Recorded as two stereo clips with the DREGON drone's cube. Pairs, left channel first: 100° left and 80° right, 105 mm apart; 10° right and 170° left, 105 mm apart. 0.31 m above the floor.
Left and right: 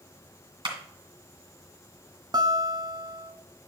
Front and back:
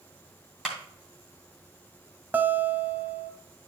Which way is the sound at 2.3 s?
120° right.